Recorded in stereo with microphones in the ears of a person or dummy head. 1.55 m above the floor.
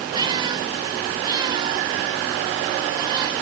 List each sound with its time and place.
0.1 s a cat meowing: 25° right (ahead or behind)